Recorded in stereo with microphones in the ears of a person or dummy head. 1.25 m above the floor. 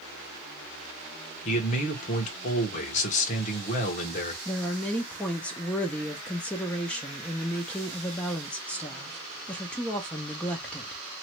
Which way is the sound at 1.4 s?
40° left (ahead or behind).